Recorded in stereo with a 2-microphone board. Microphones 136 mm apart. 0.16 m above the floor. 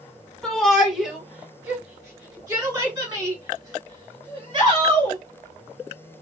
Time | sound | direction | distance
0.4 | a shout | 5° left (ahead or behind) | 1.6 m